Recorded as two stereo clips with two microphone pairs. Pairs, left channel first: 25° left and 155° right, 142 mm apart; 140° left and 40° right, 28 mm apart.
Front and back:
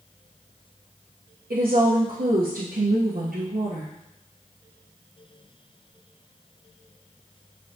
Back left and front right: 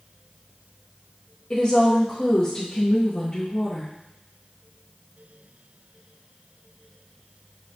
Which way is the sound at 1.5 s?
160° right.